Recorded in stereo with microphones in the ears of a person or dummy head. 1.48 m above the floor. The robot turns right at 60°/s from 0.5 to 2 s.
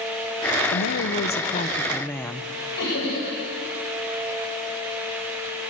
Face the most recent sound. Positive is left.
turn(degrees=65)  # may be behind; listen again after turning